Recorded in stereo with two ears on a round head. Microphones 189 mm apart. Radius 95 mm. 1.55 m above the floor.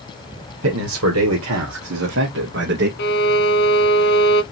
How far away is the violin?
About 0.8 m.